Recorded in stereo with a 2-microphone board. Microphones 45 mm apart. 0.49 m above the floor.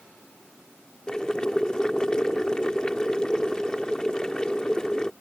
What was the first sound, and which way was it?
Boiling, 20° left (ahead or behind).